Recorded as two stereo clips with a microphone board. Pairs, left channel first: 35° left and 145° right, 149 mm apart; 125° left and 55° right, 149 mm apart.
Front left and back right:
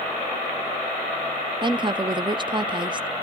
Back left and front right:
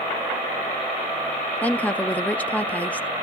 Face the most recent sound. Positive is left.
turn(degrees=-165)